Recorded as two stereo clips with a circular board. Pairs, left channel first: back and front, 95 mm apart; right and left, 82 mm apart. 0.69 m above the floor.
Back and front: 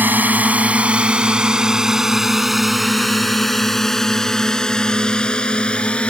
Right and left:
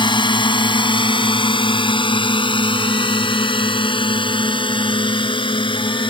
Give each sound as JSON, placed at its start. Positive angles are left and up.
{"t": 0.0, "sound": "a drone", "azimuth_deg": -70}